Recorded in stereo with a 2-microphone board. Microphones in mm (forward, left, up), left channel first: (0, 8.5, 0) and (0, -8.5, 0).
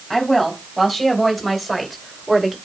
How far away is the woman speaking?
About 3.5 m.